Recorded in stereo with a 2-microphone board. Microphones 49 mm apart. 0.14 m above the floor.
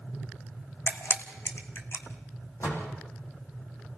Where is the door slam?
65° left (ahead or behind), 5.5 m.